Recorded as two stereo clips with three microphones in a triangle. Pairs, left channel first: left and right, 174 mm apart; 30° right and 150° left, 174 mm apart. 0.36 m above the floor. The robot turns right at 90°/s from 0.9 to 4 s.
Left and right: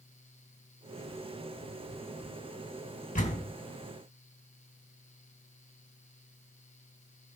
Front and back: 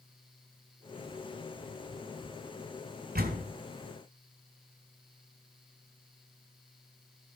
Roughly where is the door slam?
Behind left.